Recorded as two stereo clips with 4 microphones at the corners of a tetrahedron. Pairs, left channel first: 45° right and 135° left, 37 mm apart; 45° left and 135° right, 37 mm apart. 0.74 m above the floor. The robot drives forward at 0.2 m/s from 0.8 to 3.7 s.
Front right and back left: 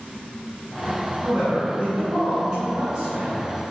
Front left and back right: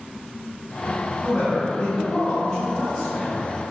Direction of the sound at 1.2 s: 105° left.